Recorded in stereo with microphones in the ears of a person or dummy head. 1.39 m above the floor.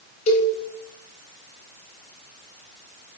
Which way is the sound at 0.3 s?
35° left (ahead or behind).